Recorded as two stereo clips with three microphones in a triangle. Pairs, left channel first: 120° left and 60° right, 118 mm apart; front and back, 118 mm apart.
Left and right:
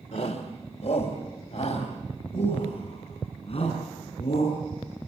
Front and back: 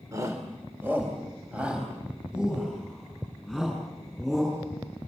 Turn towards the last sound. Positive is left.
turn(degrees=90)